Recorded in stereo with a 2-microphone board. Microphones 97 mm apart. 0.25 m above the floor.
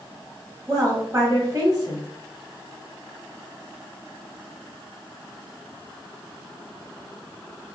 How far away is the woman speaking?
About 1.0 m.